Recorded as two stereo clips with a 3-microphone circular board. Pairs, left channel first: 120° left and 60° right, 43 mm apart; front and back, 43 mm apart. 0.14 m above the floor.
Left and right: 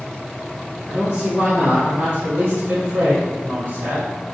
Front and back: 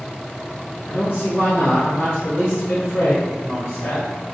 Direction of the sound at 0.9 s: 25° right.